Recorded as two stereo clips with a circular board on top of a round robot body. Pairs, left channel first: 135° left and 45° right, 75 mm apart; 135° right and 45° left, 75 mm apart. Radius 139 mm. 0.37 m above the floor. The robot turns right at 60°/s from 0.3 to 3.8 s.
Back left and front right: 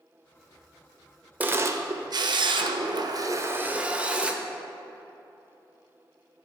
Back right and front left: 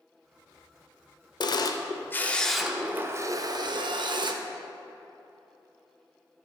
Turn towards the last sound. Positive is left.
turn(degrees=30)